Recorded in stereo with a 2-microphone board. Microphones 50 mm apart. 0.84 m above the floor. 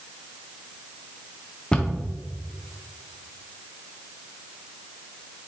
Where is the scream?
No scream in this recording.